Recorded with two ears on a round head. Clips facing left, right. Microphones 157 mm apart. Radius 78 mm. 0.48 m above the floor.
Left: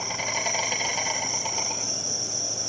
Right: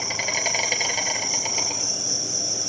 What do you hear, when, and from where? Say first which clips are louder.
0.0 s an insect: right 1 dB; 25° right (ahead or behind), 2.5 m